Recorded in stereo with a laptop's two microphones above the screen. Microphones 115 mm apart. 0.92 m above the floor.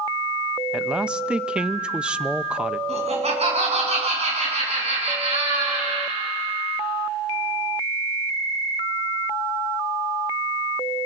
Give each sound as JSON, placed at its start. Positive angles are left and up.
{"t": 0.7, "sound": "a man speaking", "side_deg": -10, "distance_m": 0.5}
{"t": 2.9, "sound": "laughter", "side_deg": -60, "distance_m": 8.5}